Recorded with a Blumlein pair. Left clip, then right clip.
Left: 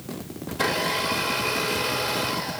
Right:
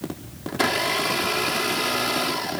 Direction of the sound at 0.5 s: 65° right.